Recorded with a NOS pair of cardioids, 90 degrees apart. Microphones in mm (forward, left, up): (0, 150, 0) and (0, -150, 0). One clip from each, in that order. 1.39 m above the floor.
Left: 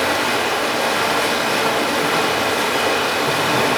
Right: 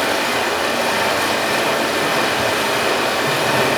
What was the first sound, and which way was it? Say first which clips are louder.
Running water: even; 10° right.